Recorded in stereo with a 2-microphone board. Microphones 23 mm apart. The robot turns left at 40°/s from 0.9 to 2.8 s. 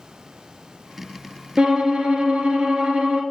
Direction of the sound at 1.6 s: 50° right.